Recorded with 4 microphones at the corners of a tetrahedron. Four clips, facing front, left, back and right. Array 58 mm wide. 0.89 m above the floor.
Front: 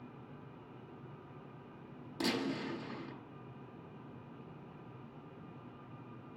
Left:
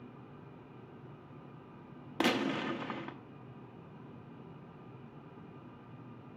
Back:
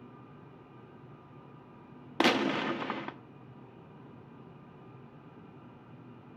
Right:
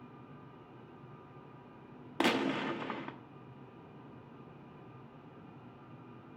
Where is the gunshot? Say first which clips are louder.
Even, back 9 dB; 170° right, 0.6 m.